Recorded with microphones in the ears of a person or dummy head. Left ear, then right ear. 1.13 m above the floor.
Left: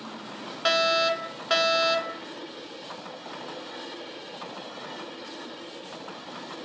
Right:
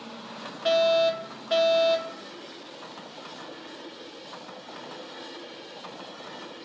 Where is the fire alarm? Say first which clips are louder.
Right 1 dB; 40° left (ahead or behind), 2 m.